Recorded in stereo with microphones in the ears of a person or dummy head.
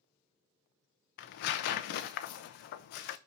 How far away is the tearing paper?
About 0.6 m.